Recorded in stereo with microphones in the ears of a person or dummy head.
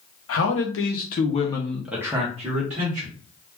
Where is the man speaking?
65° left (ahead or behind), 0.9 m; by 3.1 s 45° right (ahead or behind), 1.0 m.